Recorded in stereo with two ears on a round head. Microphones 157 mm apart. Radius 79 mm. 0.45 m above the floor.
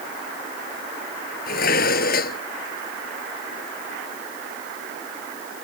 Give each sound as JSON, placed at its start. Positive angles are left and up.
{"t": 1.5, "sound": "dishes clattering", "side_deg": 55}